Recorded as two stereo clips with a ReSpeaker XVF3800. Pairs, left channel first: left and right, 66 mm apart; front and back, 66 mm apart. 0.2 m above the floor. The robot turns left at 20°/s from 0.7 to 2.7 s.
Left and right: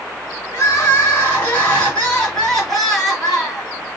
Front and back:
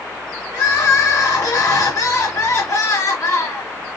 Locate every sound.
0.5 s crying: 45° left, 2.5 m; by 3.7 s 5° left, 2.5 m